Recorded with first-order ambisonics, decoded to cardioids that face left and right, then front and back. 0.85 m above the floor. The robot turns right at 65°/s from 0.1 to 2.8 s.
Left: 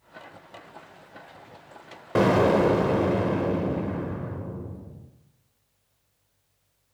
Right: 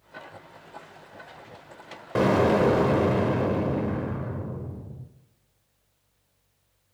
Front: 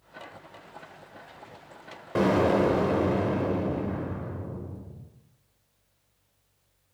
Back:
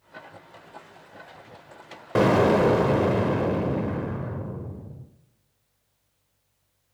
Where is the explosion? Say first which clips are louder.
Left 1 dB, back 4 dB; 160° left, 0.6 m; by 5.1 s 160° right, 0.6 m.